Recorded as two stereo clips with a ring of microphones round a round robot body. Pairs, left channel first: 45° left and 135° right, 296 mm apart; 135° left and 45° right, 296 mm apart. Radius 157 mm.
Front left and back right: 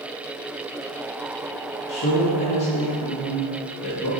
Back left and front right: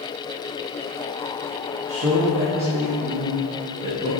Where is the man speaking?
Straight ahead, 1.3 m; by 4.1 s 30° left, 2.5 m.